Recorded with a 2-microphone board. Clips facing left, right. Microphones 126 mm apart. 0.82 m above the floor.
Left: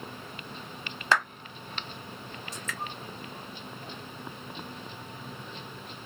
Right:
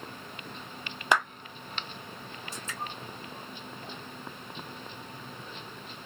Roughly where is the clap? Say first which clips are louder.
Even; centre.